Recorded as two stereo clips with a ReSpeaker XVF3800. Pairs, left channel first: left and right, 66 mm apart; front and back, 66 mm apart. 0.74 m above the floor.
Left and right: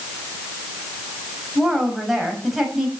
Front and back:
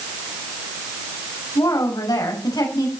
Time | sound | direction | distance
1.6 | a woman speaking | 5° right | 5 m